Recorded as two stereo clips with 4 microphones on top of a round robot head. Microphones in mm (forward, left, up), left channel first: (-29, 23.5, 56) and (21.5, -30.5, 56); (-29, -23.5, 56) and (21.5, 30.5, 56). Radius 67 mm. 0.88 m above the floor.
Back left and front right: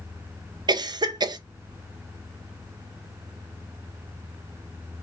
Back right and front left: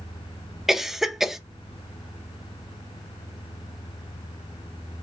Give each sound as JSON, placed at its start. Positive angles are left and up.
{"t": 0.7, "sound": "a cough", "azimuth_deg": -35, "distance_m": 0.6}